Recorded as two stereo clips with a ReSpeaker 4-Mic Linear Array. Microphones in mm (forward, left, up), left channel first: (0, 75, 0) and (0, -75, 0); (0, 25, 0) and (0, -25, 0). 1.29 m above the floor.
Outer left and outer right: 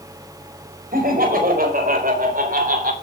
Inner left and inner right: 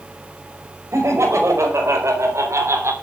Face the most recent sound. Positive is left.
turn(degrees=-75)  # may be behind; listen again after turning